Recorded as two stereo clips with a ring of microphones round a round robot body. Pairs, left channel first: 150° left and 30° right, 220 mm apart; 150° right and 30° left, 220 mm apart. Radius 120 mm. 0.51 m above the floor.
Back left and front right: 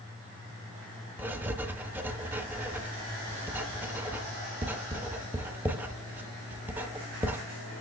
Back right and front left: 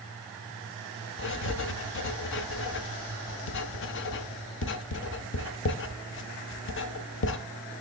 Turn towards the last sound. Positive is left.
turn(degrees=-110)